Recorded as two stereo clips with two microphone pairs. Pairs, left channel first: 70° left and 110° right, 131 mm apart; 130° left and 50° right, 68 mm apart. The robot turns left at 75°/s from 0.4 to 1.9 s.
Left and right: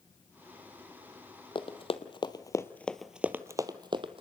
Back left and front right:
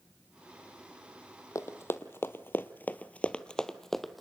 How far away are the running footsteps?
About 1.1 m.